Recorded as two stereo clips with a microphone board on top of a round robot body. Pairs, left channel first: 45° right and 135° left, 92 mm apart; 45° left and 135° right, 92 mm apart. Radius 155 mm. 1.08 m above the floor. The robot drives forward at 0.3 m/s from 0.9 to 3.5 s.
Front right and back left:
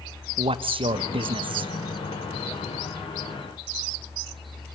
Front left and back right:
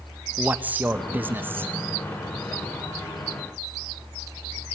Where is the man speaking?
155° left, 1.0 m; by 1.7 s 160° left, 1.2 m.